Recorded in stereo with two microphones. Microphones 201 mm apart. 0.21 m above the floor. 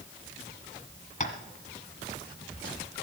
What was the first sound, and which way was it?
Tapping, 40° left (ahead or behind).